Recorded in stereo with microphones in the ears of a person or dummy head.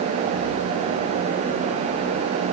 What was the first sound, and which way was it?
Only background noise.